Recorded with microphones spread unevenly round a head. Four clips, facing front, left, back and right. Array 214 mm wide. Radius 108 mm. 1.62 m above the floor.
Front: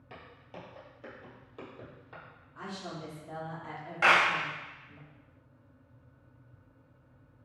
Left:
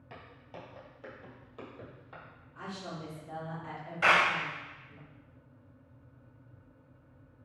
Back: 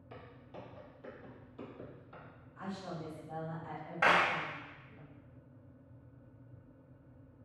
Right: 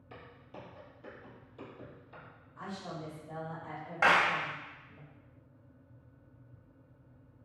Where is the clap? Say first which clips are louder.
Even, front 4 dB; 110° right, 0.9 m.